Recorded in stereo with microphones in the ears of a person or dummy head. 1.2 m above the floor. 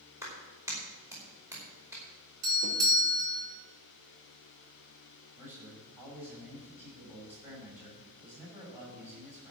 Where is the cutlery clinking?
No cutlery clinking in this recording.